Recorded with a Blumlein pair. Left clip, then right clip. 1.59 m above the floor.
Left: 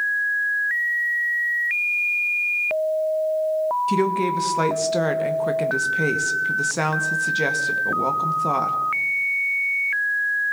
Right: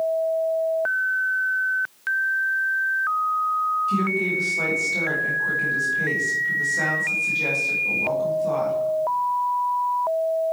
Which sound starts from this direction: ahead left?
A woman speaking, at 3.9 s.